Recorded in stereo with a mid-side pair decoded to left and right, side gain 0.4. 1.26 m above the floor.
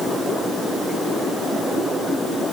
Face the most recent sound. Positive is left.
No sound to turn to.